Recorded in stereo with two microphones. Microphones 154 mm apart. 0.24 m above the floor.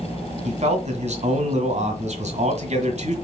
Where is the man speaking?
50° right (ahead or behind), 1.7 m.